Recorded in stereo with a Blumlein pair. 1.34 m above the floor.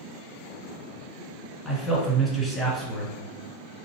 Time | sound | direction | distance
1.6 | a man speaking | straight ahead | 1.6 m